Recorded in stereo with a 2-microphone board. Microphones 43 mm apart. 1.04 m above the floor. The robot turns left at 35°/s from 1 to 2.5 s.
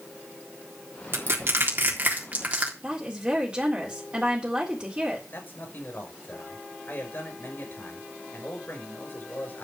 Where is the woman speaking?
25° right (ahead or behind), 3.5 m.